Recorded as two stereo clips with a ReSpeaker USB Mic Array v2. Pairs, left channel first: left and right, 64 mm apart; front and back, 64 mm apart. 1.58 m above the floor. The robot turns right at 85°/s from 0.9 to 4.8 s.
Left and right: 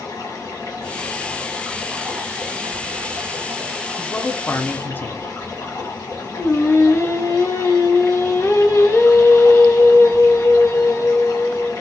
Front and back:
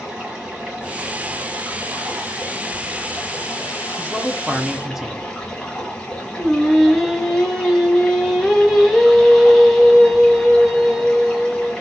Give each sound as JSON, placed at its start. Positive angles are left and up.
{"t": 0.0, "sound": "running water", "azimuth_deg": 110, "distance_m": 1.6}
{"t": 4.0, "sound": "a man speaking", "azimuth_deg": 35, "distance_m": 0.5}
{"t": 6.4, "sound": "singing", "azimuth_deg": 90, "distance_m": 0.9}